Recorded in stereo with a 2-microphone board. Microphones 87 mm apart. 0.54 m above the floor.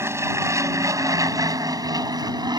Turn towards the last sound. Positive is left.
turn(degrees=-50)  # may be behind; listen again after turning